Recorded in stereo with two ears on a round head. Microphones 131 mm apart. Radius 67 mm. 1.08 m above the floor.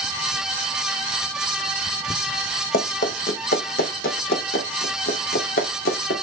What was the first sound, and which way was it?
Running footsteps, 60° left (ahead or behind).